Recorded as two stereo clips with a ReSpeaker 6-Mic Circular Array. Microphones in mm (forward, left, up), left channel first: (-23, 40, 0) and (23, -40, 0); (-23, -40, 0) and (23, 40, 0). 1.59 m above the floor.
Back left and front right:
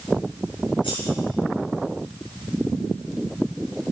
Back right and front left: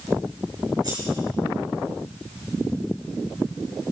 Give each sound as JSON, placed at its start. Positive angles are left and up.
{"t": 0.8, "sound": "scissors", "azimuth_deg": 100, "distance_m": 5.5}